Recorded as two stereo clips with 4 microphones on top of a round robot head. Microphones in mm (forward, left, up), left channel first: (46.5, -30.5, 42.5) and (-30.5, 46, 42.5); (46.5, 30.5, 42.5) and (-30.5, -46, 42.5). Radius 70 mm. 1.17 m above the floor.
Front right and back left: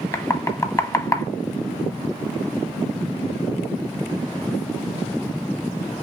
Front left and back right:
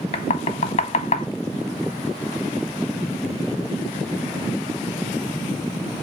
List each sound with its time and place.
0.1 s knocking: 15° left, 0.7 m